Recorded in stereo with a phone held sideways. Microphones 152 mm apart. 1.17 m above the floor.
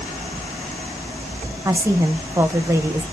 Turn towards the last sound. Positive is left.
turn(degrees=-20)  # may be behind; listen again after turning